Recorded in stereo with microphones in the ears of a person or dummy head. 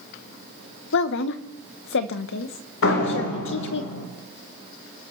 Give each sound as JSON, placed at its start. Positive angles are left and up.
{"t": 0.9, "sound": "a woman speaking", "side_deg": 65, "distance_m": 0.9}
{"t": 2.8, "sound": "a door slam", "side_deg": 75, "distance_m": 4.0}